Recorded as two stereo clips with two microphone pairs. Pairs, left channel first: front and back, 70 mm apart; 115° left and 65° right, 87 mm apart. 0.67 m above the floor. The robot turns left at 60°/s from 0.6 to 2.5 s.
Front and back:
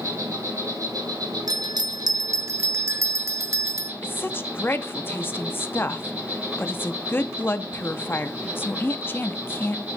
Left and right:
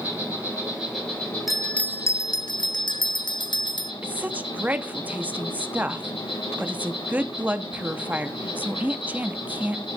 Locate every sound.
0.0 s an insect: 135° right, 7 m; by 10.0 s 110° left, 7 m
1.5 s a bell: 155° right, 0.5 m; by 3.9 s 140° left, 0.5 m
4.0 s a woman speaking: 15° right, 0.8 m